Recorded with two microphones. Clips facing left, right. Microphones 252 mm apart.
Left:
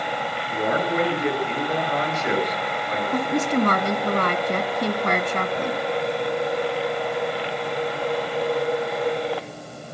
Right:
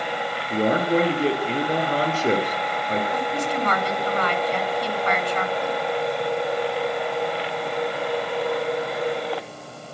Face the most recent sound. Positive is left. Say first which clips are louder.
# left 4 dB
turn(degrees=50)  # may be behind; listen again after turning